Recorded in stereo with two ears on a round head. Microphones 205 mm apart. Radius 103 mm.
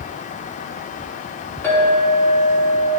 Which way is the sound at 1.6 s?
10° left (ahead or behind).